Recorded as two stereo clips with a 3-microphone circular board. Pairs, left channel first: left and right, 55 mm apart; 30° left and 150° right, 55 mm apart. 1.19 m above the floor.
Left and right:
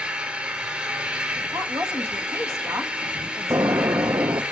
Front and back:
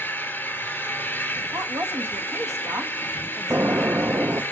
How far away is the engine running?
About 2.5 m.